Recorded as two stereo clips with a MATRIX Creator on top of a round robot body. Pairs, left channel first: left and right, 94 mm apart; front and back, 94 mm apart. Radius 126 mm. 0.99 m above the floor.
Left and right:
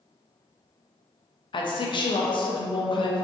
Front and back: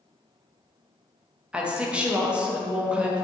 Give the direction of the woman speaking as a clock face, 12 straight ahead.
9 o'clock.